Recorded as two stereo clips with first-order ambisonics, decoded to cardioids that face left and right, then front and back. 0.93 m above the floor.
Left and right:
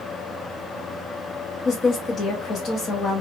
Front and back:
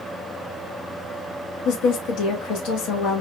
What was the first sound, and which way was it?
A woman speaking, 30° left.